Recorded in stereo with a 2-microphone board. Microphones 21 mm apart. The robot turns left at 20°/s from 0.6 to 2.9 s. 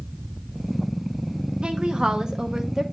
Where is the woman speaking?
45° right (ahead or behind), 1.0 m; by 2.8 s 20° right (ahead or behind), 1.0 m.